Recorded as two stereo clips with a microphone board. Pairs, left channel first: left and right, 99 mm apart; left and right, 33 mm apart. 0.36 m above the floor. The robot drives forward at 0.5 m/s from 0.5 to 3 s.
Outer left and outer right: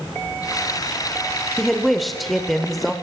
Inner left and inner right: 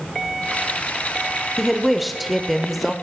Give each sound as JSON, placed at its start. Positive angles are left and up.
{"t": 1.6, "sound": "a woman speaking", "side_deg": 0, "distance_m": 0.8}